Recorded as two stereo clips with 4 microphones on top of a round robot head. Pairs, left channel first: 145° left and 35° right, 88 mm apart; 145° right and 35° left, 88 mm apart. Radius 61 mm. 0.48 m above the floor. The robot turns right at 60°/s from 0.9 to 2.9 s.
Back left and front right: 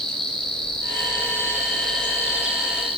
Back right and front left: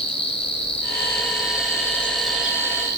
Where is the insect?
135° right, 4.5 m; by 3.0 s 15° right, 4.5 m.